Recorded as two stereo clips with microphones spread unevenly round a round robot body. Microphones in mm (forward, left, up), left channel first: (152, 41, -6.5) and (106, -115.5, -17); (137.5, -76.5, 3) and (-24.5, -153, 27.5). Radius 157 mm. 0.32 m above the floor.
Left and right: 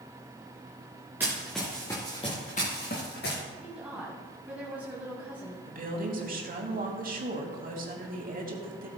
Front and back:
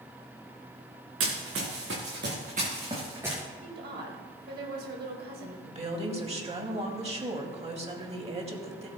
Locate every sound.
1.2 s running footsteps: 170° left, 2 m; by 3.4 s 120° left, 2 m
3.6 s a woman speaking: 175° left, 1.4 m
5.7 s a woman speaking: 100° right, 2.5 m